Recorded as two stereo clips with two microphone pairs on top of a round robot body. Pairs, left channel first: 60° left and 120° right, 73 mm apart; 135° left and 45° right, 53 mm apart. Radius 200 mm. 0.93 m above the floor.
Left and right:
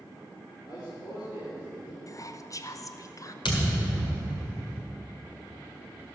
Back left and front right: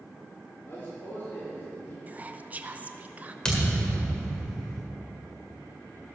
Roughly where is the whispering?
Ahead left.